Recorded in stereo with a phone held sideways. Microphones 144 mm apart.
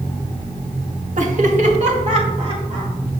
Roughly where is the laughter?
Right.